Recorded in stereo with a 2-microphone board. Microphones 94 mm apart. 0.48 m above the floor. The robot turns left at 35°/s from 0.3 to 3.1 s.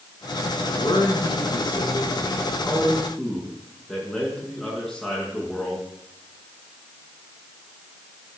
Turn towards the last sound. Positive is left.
turn(degrees=5)